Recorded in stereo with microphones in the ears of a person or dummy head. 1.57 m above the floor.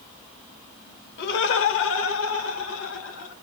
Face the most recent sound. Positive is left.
turn(degrees=85)